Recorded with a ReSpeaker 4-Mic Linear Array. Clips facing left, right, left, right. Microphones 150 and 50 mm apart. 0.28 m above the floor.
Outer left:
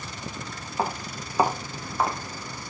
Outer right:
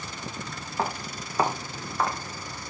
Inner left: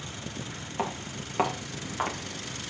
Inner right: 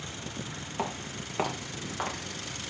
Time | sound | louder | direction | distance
0.8 | footsteps | outer left 1 dB, inner left 2 dB | 5° left (ahead or behind) | 6.5 m